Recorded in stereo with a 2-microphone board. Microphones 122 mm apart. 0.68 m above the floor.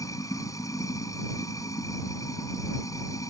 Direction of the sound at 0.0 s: 25° left (ahead or behind).